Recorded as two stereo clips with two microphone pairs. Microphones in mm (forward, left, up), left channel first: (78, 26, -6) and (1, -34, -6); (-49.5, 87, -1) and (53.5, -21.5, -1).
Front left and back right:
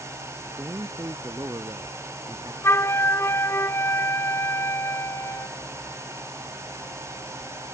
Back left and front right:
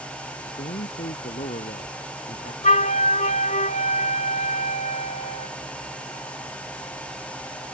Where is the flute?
100° left.